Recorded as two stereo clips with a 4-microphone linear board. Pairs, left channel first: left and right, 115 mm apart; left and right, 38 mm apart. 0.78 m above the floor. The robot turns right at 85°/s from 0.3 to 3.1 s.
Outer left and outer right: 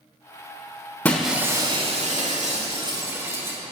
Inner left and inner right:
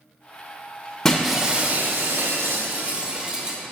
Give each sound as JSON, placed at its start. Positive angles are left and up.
{"t": 1.1, "sound": "breaking glass", "azimuth_deg": 165, "distance_m": 1.2}